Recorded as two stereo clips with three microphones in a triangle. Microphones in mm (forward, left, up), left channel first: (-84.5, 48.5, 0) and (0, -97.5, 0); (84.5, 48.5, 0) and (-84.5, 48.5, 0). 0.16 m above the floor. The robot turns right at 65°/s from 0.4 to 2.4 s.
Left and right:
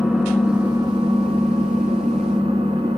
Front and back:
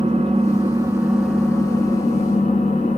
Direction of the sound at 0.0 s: 145° right.